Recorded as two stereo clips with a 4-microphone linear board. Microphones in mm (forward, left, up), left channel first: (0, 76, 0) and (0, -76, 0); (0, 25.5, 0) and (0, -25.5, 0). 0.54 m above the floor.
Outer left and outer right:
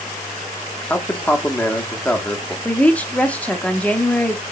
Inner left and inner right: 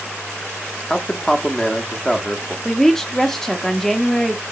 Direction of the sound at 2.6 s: 10° left (ahead or behind).